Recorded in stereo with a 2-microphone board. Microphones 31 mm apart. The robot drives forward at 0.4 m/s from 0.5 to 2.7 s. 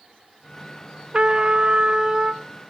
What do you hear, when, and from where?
1.1 s a trumpet: 25° right (ahead or behind), 0.7 m; by 2.4 s 20° right (ahead or behind), 1.0 m